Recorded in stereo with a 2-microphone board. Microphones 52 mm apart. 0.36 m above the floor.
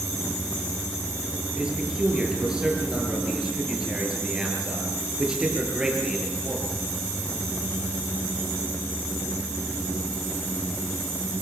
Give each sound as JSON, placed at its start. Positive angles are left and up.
{"t": 1.6, "sound": "a man speaking", "side_deg": -15, "distance_m": 7.0}